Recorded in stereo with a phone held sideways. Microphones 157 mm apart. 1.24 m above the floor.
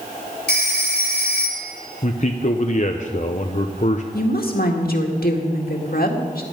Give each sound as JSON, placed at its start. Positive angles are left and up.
{"t": 0.5, "sound": "a phone ringing", "side_deg": 75, "distance_m": 2.5}
{"t": 2.0, "sound": "a man speaking", "side_deg": 50, "distance_m": 0.7}
{"t": 4.1, "sound": "a woman speaking", "side_deg": 70, "distance_m": 2.0}